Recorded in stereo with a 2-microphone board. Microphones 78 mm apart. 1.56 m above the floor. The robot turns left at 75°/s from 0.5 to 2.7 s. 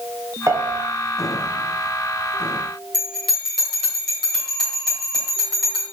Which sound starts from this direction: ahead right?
A piano, at 0.5 s.